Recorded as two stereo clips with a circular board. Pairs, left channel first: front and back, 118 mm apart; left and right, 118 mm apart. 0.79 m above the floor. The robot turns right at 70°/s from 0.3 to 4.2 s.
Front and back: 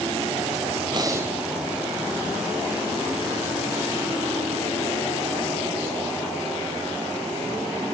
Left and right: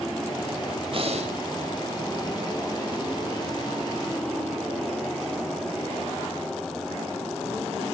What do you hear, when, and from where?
0.9 s breathing: 130° right, 3.5 m; by 1.4 s 100° right, 3.5 m